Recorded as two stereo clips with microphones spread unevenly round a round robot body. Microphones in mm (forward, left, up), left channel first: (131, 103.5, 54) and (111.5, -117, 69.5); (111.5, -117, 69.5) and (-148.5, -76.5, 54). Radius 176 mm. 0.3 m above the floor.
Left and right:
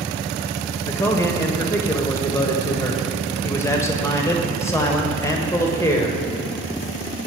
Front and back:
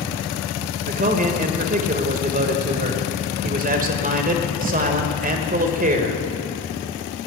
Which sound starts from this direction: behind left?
A man speaking, at 0.8 s.